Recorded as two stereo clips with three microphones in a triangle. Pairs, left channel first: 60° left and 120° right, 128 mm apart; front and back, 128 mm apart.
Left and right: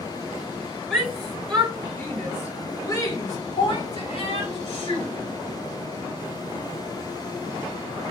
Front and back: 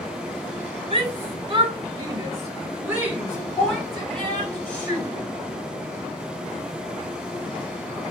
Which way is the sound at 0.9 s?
155° left.